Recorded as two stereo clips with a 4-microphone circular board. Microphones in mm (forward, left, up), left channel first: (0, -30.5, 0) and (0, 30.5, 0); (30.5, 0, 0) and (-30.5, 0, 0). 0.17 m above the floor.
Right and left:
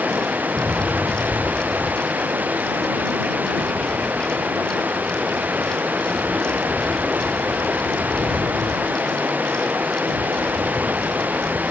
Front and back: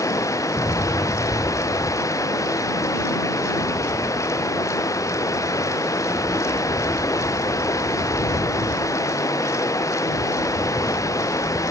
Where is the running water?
30° left.